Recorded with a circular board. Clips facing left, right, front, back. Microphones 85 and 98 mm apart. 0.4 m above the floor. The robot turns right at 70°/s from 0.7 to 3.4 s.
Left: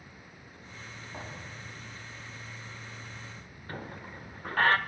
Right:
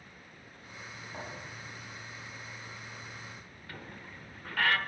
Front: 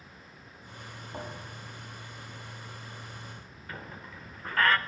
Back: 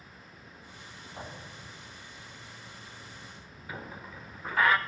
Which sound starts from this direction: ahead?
A thud, at 1.1 s.